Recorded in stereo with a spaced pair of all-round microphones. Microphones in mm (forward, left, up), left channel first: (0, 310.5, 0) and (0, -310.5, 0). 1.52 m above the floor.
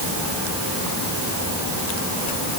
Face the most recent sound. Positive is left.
No sound to turn to.